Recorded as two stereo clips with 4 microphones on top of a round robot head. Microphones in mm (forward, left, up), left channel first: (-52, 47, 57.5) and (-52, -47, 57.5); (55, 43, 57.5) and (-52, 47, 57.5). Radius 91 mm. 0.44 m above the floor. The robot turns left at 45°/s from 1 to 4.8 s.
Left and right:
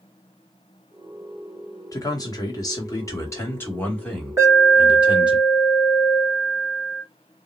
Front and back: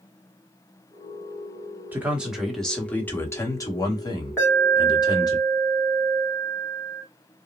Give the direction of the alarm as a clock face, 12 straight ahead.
2 o'clock.